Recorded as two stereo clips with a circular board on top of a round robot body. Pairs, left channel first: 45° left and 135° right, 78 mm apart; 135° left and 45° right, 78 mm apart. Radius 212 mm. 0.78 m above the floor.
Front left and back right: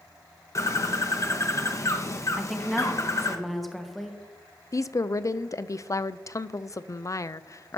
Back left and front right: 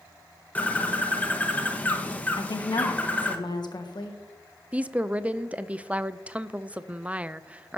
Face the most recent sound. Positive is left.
turn(degrees=20)